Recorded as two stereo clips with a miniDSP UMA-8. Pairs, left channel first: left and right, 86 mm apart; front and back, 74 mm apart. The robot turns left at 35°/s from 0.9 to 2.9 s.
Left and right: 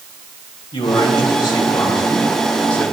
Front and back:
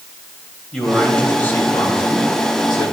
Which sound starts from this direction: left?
A man speaking, at 0.7 s.